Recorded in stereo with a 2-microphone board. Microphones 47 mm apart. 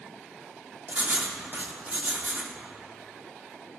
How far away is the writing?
About 0.9 m.